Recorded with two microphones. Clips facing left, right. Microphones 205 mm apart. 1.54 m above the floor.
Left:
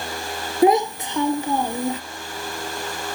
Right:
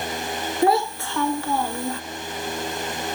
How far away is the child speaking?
About 0.5 m.